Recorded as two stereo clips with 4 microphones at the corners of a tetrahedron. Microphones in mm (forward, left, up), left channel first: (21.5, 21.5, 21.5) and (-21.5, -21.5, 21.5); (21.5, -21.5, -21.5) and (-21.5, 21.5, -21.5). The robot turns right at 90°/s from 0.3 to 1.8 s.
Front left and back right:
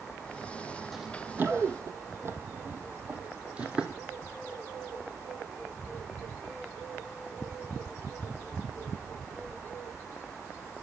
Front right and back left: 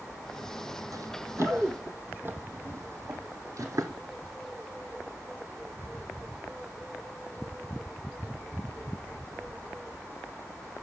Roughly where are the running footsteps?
Behind left.